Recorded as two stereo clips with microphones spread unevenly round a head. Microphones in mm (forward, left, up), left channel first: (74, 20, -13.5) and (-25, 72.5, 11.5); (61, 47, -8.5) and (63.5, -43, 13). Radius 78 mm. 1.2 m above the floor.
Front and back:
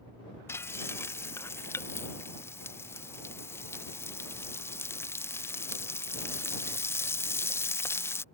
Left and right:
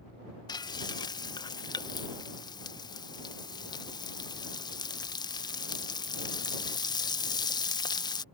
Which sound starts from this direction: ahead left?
Frying, at 0.5 s.